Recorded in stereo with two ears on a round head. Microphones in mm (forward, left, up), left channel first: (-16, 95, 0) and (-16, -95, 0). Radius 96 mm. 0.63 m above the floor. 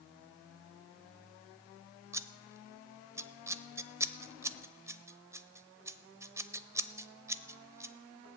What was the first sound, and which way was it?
Scissors, 15° right (ahead or behind).